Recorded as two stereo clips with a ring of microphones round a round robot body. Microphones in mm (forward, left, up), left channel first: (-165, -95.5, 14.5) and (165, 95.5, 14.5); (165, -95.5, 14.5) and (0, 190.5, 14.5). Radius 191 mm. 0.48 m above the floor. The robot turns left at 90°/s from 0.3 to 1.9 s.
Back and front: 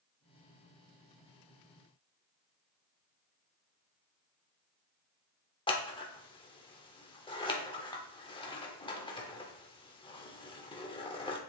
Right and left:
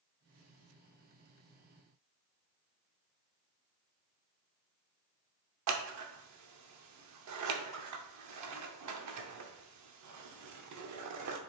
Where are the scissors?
135° left, 0.8 m.